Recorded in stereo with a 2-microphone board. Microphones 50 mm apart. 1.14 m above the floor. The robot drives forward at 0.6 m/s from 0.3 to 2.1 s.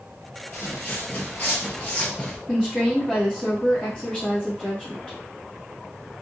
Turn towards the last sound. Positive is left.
turn(degrees=20)  # may be behind; listen again after turning